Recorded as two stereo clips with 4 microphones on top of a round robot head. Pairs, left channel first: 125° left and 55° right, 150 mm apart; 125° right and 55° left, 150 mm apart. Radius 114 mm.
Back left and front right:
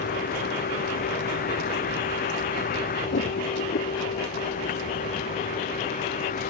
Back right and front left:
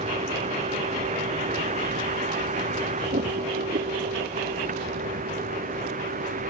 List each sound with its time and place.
0.0 s a vehicle: 100° left; by 6.5 s 90° left